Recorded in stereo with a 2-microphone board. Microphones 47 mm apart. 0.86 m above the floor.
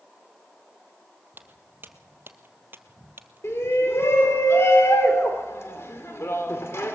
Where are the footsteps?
45° right (ahead or behind), 1.6 m; by 4.4 s 40° right (ahead or behind), 1.5 m.